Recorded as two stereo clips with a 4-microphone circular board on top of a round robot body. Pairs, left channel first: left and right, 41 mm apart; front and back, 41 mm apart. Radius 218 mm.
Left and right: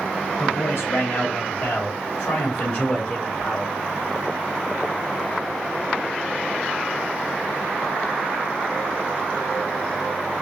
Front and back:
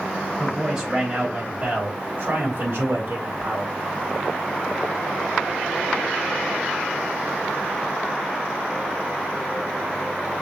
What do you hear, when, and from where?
0.4 s a man speaking: 100° left, 3 m; by 3.7 s 160° left, 2 m